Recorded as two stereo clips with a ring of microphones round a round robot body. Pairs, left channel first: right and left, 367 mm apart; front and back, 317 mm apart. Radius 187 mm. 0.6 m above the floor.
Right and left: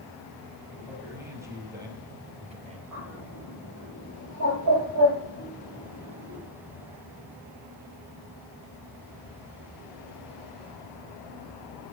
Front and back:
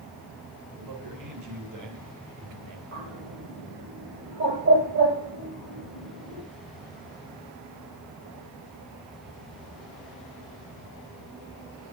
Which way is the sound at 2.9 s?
140° left.